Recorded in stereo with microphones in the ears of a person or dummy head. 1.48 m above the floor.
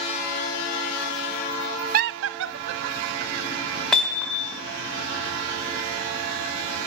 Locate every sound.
1.9 s laughter: 50° right (ahead or behind), 0.5 m; by 4.7 s 40° right (ahead or behind), 3.5 m
3.9 s hammering: 10° left (ahead or behind), 3 m